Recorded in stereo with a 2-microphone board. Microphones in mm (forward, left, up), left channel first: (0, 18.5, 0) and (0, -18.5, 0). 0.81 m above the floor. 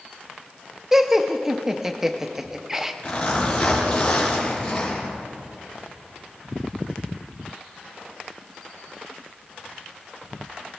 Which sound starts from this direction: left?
A zipper, at 3.0 s.